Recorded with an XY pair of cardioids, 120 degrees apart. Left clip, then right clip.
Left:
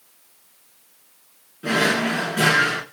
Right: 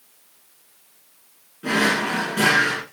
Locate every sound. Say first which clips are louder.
1.6 s a drawer: even; 10° left, 1.4 m